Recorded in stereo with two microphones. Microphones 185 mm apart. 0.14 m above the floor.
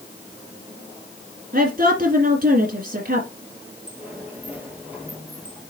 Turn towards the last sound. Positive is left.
turn(degrees=-10)  # may be behind; listen again after turning